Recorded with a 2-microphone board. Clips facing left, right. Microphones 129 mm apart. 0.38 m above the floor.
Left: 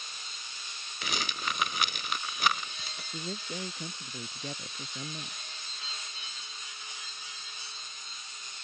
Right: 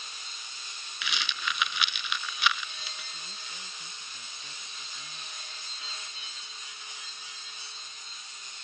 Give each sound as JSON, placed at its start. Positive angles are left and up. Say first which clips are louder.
{"t": 1.0, "sound": "a rattle", "louder": "left 1 dB", "side_deg": 45}
{"t": 3.1, "sound": "a man speaking", "louder": "left 10 dB", "side_deg": 65}